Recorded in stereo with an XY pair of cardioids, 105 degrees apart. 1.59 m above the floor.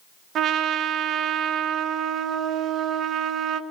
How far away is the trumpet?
About 2 m.